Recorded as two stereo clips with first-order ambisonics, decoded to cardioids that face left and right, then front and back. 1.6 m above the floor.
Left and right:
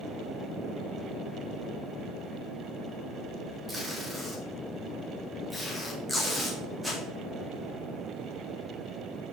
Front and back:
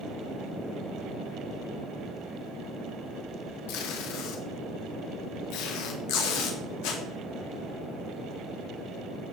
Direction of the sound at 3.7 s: 10° right.